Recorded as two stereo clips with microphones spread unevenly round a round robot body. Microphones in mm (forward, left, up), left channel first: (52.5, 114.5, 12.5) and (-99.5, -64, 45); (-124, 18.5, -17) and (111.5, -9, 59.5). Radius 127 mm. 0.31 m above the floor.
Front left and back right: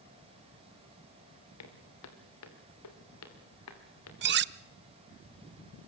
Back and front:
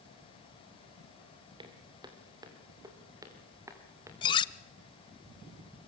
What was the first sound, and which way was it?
Footsteps, 65° left.